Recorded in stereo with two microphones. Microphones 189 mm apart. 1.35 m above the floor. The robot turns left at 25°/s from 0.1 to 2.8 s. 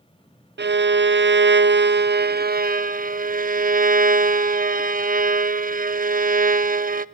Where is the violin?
75° right, 0.5 m; by 7.0 s 130° right, 0.5 m.